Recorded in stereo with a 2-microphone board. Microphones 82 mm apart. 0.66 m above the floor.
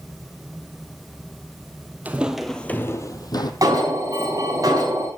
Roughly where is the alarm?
Right.